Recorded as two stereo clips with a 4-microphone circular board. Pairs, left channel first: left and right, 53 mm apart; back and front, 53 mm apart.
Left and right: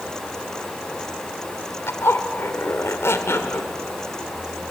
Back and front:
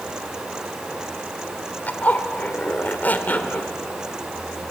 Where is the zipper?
125° left, 1.6 m.